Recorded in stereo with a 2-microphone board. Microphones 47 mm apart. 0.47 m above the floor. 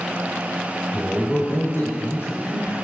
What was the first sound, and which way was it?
A man speaking, 55° left (ahead or behind).